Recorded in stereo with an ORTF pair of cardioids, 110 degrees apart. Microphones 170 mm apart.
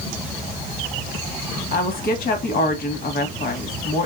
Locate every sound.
1.7 s a woman speaking: 65° left, 1.6 m